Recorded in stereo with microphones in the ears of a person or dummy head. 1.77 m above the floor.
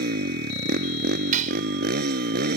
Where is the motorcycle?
50° right (ahead or behind).